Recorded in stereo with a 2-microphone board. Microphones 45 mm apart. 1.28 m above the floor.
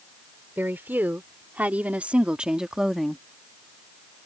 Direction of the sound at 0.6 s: 50° right (ahead or behind).